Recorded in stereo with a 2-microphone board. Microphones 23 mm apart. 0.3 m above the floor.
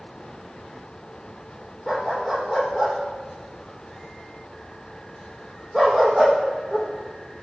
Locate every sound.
1.9 s a dog barking: 20° right (ahead or behind), 3 m